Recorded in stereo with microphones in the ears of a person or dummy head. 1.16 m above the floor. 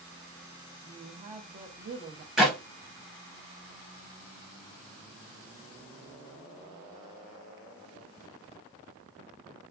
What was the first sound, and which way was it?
A woman speaking, 30° right (ahead or behind).